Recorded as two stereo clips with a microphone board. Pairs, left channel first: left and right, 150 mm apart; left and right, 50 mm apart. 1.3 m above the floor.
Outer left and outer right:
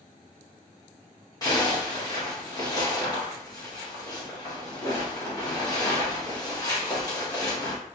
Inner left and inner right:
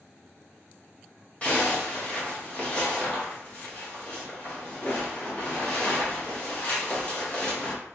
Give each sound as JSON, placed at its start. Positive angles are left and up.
{"t": 1.4, "sound": "a zipper", "side_deg": 25, "distance_m": 1.1}